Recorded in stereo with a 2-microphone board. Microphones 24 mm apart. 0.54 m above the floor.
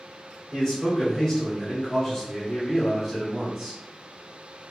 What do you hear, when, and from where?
0.5 s a man speaking: 20° left (ahead or behind), 1.5 m; by 3.8 s centre (ahead or behind), 1.2 m